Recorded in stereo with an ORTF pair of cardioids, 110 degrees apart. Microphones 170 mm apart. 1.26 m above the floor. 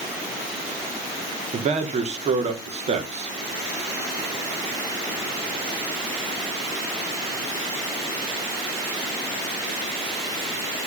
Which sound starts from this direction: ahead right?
A man speaking, at 1.5 s.